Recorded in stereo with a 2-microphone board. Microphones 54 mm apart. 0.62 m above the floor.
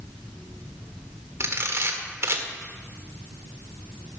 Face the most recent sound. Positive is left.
turn(degrees=-55)  # may be behind; listen again after turning